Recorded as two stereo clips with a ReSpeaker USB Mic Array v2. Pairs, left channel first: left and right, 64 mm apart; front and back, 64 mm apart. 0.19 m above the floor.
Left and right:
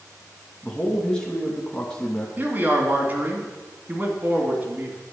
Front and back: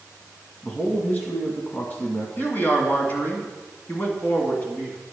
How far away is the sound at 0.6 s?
About 1.1 m.